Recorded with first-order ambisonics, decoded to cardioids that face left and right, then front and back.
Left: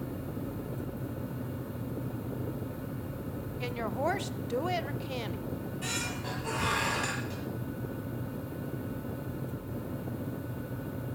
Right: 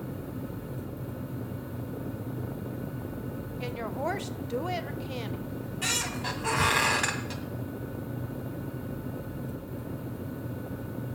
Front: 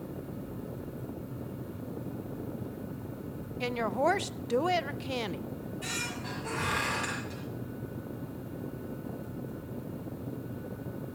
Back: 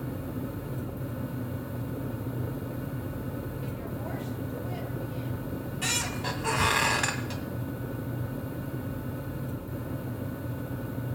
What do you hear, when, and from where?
3.6 s a woman speaking: 5° left, 0.5 m
5.5 s a squeak: 140° right, 1.9 m